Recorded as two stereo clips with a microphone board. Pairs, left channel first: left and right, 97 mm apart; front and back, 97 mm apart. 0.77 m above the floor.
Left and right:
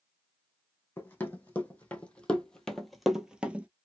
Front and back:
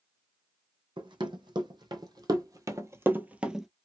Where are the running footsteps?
160° left, 1.6 m; by 3.7 s 100° right, 0.7 m.